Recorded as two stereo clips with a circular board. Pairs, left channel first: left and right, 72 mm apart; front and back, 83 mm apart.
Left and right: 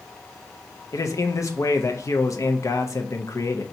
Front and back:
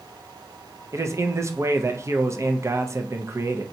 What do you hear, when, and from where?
0.9 s a man speaking: 130° left, 0.5 m